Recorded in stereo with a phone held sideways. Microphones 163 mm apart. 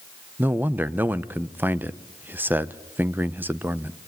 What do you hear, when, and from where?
0.4 s a man speaking: 10° right (ahead or behind), 0.8 m